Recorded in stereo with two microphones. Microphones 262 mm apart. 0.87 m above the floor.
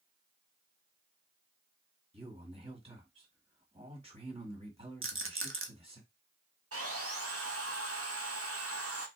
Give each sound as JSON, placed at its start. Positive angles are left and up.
{"t": 2.1, "sound": "a man speaking", "side_deg": -20, "distance_m": 1.6}
{"t": 5.0, "sound": "a rattle", "side_deg": -50, "distance_m": 0.7}
{"t": 6.7, "sound": "sawing", "side_deg": -60, "distance_m": 0.9}